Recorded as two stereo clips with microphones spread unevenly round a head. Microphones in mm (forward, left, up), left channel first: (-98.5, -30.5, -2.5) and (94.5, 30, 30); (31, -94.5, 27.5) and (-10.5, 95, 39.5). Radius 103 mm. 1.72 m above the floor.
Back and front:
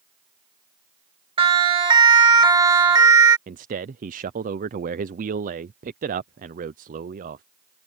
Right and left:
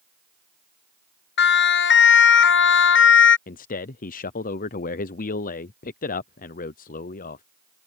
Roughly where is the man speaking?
Ahead right.